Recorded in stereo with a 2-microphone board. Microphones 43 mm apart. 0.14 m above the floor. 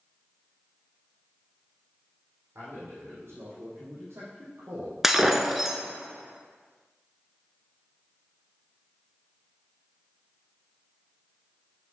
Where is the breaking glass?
10° right (ahead or behind), 1.0 m.